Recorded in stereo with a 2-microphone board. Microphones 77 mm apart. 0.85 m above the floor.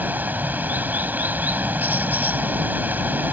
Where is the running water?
25° right (ahead or behind).